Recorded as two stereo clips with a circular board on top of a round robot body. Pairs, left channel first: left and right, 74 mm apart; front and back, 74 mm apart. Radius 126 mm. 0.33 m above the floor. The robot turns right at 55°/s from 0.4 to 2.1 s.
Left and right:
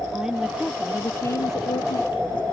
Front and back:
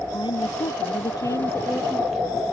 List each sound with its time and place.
0.1 s a woman speaking: 10° right; by 2.4 s 85° left